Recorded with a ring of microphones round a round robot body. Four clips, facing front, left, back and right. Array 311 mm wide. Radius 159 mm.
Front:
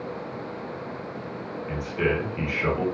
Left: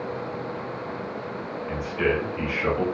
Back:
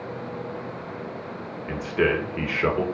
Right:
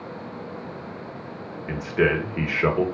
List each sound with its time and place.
1.7 s a man speaking: 115° right, 1.4 m